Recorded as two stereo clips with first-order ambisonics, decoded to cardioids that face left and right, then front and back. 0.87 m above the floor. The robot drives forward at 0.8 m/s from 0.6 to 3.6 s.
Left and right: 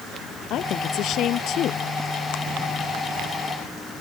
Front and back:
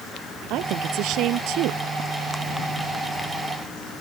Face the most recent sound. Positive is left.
turn(degrees=145)